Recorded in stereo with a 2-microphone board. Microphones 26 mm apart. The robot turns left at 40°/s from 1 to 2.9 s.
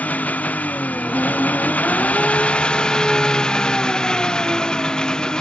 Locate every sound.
0.0 s an engine running: 105° left; by 5.4 s 30° left